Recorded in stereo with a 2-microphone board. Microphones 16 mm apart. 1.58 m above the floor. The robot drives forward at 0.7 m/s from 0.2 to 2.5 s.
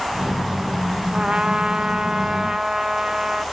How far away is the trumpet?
About 0.9 m.